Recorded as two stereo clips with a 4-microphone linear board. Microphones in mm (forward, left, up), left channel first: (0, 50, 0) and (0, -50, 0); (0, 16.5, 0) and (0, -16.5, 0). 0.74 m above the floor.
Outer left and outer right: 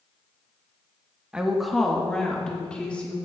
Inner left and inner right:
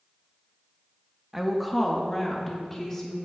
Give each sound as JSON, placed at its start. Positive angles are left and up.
{"t": 1.3, "sound": "a woman speaking", "side_deg": -10, "distance_m": 0.8}